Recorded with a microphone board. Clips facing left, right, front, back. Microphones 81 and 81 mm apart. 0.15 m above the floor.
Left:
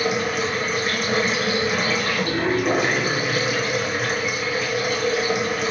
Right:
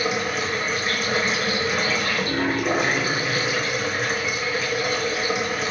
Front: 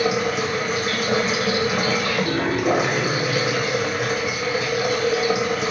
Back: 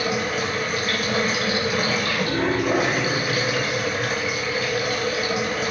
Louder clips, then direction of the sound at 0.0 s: Left 2 dB, front 3 dB; straight ahead.